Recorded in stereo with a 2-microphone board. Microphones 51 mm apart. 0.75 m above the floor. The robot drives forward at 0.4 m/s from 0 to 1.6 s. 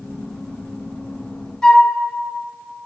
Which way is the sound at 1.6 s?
15° left (ahead or behind).